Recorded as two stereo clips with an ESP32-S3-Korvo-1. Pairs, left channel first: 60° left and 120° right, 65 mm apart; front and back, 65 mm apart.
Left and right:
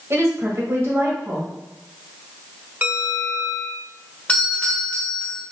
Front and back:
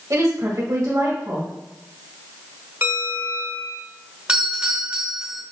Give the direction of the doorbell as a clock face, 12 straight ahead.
8 o'clock.